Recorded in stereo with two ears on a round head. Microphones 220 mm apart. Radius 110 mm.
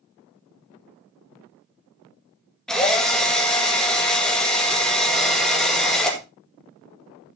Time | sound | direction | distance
2.7 | a drill | 5° left (ahead or behind) | 2 m